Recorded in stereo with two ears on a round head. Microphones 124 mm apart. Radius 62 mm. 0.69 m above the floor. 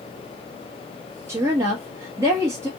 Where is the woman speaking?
20° right (ahead or behind), 0.8 m.